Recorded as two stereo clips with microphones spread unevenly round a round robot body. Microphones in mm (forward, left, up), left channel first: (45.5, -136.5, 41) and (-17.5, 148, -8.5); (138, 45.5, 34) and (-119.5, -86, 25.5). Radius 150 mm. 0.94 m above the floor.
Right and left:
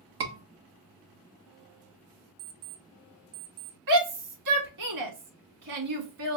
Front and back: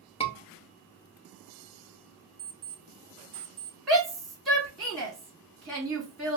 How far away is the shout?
About 2.0 m.